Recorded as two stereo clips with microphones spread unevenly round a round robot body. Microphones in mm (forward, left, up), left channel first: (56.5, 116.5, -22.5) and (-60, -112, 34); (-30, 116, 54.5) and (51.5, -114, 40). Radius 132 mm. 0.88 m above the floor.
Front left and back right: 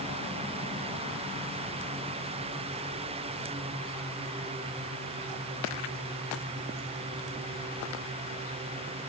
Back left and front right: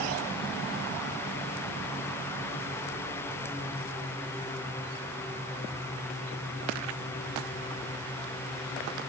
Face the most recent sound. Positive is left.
No sound to turn to.